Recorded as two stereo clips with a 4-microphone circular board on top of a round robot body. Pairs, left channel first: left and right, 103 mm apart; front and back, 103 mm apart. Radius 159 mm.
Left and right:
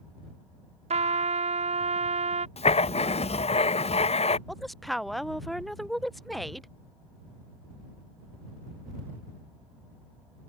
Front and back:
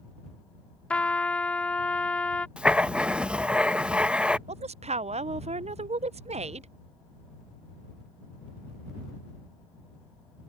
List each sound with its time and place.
0.9 s a trumpet: 80° right
2.6 s writing: 100° left
4.5 s a woman speaking: straight behind